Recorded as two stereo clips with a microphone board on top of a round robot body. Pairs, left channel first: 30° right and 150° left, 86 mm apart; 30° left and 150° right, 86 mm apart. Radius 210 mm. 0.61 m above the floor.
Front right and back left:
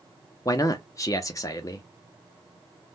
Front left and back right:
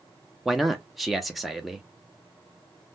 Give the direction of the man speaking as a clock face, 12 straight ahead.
2 o'clock.